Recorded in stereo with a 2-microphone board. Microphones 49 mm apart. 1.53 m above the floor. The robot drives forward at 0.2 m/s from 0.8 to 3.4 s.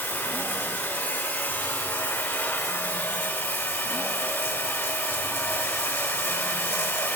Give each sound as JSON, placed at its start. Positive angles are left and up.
{"t": 0.0, "sound": "running water", "side_deg": 50, "distance_m": 2.0}